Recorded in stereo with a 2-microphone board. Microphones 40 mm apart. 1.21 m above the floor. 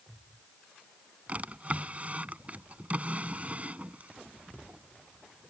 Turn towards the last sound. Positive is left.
turn(degrees=-35)  # may be behind; listen again after turning